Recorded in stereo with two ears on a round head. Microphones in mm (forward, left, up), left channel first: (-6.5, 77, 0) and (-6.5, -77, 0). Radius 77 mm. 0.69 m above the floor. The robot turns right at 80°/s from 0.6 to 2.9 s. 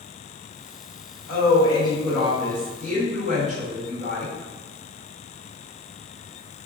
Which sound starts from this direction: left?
A woman speaking, at 1.3 s.